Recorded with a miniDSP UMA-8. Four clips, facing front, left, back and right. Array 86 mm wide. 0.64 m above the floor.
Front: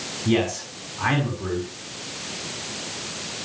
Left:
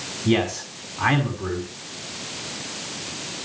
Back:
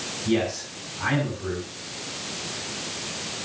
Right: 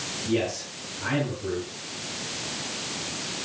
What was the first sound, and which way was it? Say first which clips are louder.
A man speaking: left 5 dB, front 2 dB; 70° left.